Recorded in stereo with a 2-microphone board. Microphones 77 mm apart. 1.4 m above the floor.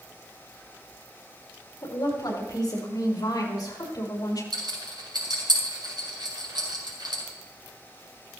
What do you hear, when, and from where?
1.8 s a woman speaking: 55° left (ahead or behind), 8 m
4.5 s a rattle: 75° right (ahead or behind), 5.5 m